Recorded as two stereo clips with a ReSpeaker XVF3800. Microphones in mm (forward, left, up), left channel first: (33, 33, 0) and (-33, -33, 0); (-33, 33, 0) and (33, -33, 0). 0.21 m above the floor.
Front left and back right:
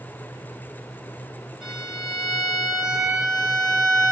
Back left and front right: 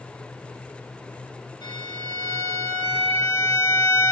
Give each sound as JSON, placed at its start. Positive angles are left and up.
{"t": 1.6, "sound": "a violin", "azimuth_deg": 140, "distance_m": 2.5}